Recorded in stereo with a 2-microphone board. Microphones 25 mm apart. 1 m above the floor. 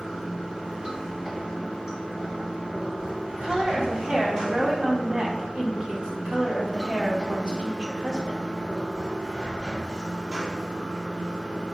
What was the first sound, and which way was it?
Running water, 35° right (ahead or behind).